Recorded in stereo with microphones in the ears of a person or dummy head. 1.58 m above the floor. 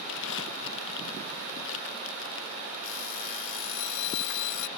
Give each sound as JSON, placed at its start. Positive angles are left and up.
{"t": 0.1, "sound": "crumpling", "side_deg": 75}
{"t": 2.8, "sound": "an alarm clock", "side_deg": 70}